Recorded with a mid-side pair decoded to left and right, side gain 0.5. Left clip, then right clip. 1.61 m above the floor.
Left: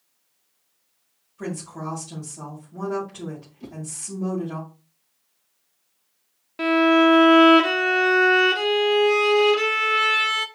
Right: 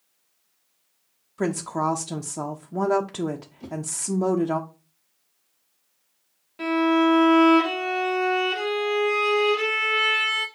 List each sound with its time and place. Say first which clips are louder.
1.4 s a woman speaking: right 8 dB; 70° right, 0.6 m
3.6 s a whoosh: right 6 dB; 5° right, 1.2 m
6.6 s a violin: left 4 dB; 50° left, 0.8 m